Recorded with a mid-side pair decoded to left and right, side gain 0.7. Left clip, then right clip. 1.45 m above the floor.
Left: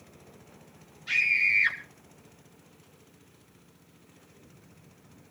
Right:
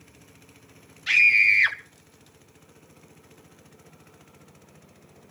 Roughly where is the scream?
Ahead right.